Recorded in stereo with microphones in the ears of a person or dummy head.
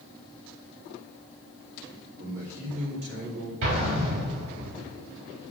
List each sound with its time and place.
2.2 s a man speaking: 90° right, 2.5 m; by 3.5 s 60° right (ahead or behind), 2.5 m
3.6 s an explosion: 60° right (ahead or behind), 3 m